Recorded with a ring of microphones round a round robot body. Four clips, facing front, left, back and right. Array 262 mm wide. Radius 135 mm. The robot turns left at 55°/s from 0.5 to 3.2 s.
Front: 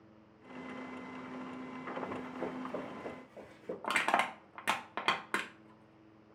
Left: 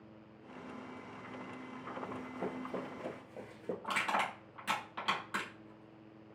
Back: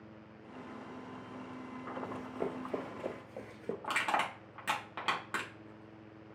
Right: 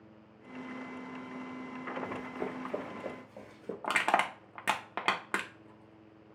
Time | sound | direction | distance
2.0 | running footsteps | 125° right | 1.6 m
3.8 | crushing | 65° right | 0.7 m